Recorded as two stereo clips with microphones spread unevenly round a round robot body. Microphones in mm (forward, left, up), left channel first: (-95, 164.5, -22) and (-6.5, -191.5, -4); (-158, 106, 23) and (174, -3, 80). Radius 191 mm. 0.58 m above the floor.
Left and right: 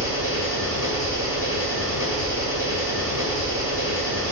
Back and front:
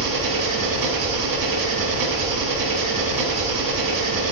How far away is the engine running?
About 0.7 m.